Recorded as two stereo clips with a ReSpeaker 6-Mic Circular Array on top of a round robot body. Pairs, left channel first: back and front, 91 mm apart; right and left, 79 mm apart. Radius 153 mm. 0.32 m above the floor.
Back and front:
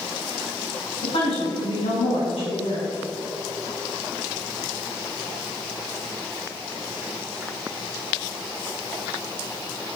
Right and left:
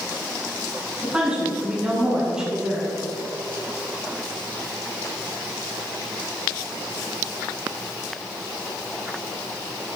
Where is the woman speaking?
165° left, 4 m.